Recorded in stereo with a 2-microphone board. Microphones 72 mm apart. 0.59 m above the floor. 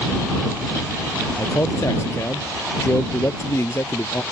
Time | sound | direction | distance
1.4 | a man speaking | 40° left (ahead or behind) | ?